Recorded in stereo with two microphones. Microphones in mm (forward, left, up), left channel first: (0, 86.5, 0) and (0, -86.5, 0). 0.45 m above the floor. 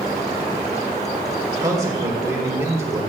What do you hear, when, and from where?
1.6 s a man speaking: 20° right (ahead or behind), 2.5 m; by 3.0 s 15° right (ahead or behind), 1.5 m